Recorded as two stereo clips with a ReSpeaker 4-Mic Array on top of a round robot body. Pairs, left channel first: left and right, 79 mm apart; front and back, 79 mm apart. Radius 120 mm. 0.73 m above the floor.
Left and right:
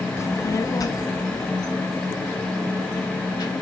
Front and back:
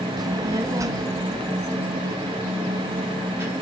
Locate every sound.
0.2 s a child speaking: 145° left, 0.5 m; by 3.5 s 120° left, 2 m